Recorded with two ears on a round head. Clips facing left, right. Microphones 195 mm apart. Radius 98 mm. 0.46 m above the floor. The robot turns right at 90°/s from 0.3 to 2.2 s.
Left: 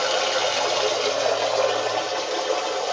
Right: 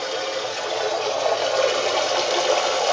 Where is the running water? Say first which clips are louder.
Left 3 dB; 80° left, 0.8 m; by 2.9 s 105° right, 0.8 m.